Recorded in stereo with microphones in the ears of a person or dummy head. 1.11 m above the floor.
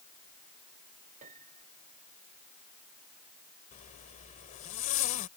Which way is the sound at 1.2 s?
50° right (ahead or behind).